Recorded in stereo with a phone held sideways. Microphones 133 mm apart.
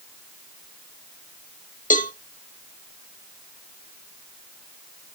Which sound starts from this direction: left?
A cowbell, at 1.9 s.